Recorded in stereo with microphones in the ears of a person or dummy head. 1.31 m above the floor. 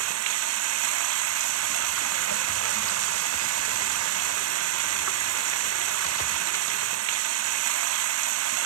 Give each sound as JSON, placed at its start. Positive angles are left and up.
{"t": 0.0, "sound": "running water", "side_deg": -80}